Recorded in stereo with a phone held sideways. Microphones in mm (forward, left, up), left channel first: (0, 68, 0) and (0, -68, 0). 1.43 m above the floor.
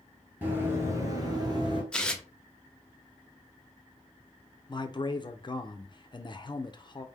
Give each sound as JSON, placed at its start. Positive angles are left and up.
{"t": 0.4, "sound": "running footsteps", "side_deg": -15, "distance_m": 1.8}
{"t": 1.9, "sound": "tearing paper", "side_deg": 5, "distance_m": 0.6}
{"t": 4.7, "sound": "a man speaking", "side_deg": 35, "distance_m": 0.6}